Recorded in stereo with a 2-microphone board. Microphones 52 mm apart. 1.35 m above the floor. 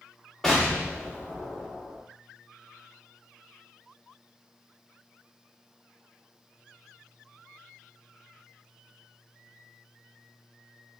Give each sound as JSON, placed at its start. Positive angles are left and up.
{"t": 0.4, "sound": "an explosion", "side_deg": 5, "distance_m": 1.1}